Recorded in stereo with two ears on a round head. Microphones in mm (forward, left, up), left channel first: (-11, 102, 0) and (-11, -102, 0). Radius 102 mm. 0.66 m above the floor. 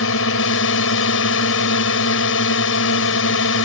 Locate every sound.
0.0 s a drone: 65° left (ahead or behind)